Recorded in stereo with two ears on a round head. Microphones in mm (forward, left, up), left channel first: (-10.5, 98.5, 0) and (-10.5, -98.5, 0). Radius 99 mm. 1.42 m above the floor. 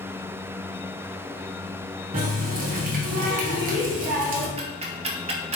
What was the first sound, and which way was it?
A running tap, 40° right (ahead or behind).